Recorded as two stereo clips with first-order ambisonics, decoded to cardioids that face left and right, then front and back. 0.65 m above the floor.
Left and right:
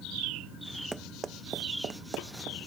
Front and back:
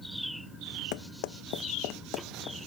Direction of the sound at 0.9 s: 10° right.